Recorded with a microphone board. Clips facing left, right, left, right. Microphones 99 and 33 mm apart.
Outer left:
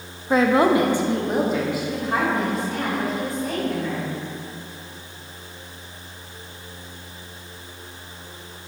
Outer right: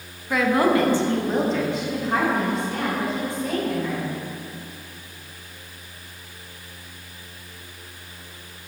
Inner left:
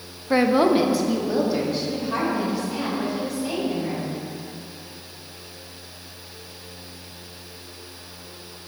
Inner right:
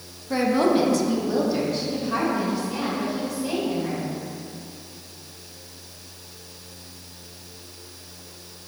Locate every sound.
0.3 s a woman speaking: 30° left (ahead or behind), 0.5 m; by 4.1 s centre (ahead or behind), 3.5 m